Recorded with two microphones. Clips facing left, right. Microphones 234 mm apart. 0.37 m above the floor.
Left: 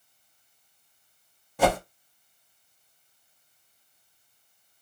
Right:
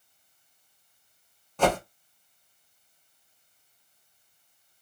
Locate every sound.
1.6 s a whoosh: 10° left (ahead or behind), 0.6 m